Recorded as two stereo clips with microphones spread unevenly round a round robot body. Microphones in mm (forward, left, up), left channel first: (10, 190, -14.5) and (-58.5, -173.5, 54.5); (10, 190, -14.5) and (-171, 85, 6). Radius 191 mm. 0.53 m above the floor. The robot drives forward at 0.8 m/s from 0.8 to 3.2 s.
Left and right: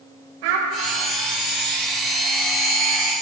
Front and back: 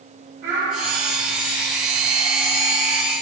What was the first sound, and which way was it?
A child speaking, 75° right.